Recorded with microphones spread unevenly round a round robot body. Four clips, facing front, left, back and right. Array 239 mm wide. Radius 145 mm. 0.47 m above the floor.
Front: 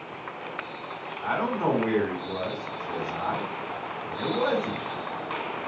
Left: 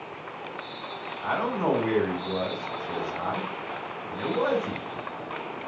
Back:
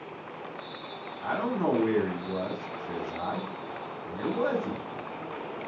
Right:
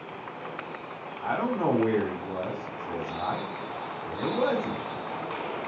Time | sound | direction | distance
1.2 | a man speaking | 95° right | 1.6 m